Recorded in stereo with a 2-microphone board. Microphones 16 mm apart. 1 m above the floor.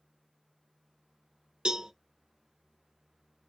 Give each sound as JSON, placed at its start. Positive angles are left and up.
{"t": 1.6, "sound": "a cowbell", "side_deg": -65, "distance_m": 1.0}